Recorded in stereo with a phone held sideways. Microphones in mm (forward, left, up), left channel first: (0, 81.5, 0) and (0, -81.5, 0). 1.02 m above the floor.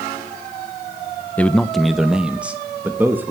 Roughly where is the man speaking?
Centre.